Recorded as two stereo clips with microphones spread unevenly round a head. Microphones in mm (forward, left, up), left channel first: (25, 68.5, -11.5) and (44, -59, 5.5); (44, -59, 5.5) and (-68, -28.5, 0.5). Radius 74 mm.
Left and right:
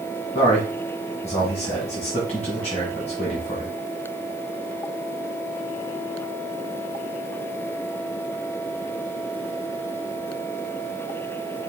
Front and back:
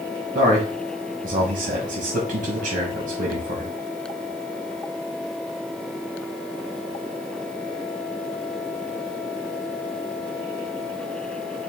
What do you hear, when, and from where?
0.3 s a man speaking: 175° left, 1.4 m